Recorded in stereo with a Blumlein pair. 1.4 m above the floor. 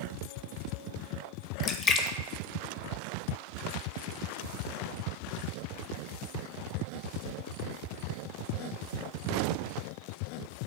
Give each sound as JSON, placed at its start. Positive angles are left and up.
{"t": 1.6, "sound": "a splash", "azimuth_deg": 20, "distance_m": 0.6}